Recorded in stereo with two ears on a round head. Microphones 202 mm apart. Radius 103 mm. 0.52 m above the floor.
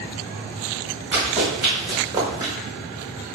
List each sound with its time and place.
1.1 s running footsteps: 10° right (ahead or behind), 1.9 m; by 2.5 s 15° right (ahead or behind), 0.8 m